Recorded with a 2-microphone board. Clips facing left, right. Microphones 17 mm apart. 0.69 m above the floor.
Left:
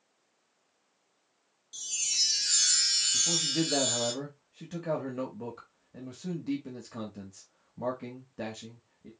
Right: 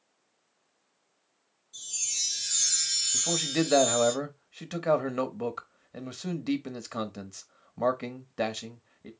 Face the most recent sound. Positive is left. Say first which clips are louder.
# even
turn(degrees=-40)  # may be behind; listen again after turning